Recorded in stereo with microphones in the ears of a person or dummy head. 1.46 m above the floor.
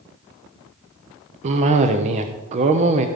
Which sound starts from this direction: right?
A cough, at 1.4 s.